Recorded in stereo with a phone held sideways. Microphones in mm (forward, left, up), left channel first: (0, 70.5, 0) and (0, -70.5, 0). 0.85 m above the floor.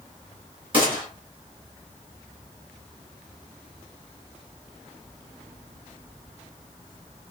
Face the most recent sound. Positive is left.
turn(degrees=-40)  # may be behind; listen again after turning